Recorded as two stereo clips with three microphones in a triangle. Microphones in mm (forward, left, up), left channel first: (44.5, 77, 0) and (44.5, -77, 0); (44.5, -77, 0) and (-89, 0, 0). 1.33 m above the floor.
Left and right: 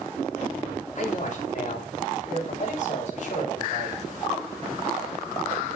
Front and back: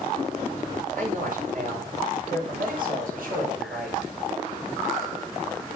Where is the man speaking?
125° left, 6 m; by 4.0 s 130° left, 7.5 m.